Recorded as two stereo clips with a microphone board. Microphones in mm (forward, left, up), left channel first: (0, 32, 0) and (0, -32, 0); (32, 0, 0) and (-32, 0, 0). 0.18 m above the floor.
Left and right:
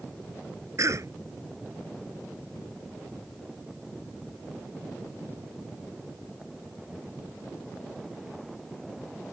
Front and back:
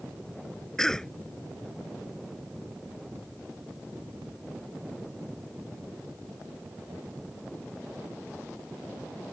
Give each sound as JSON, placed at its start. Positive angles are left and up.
{"t": 0.8, "sound": "a cough", "azimuth_deg": -80}